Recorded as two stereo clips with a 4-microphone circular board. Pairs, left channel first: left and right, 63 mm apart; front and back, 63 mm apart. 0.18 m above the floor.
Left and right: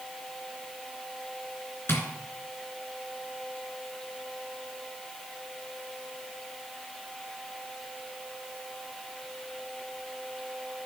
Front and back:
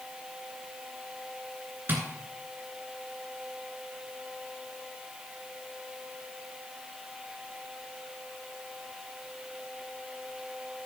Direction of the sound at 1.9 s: 130° left.